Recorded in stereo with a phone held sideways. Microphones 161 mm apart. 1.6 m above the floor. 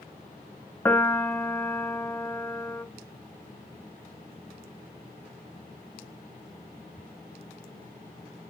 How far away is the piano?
About 0.5 m.